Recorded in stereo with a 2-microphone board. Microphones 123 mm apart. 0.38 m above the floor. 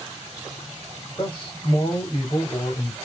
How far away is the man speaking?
About 1.1 m.